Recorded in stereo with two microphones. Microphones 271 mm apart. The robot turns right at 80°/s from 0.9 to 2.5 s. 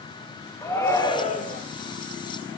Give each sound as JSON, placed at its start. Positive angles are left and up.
{"t": 0.6, "sound": "a shout", "azimuth_deg": 20, "distance_m": 1.0}